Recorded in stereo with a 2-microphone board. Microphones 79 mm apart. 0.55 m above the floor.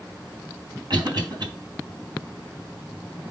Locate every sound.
0.9 s a cough: 65° right (ahead or behind), 3.5 m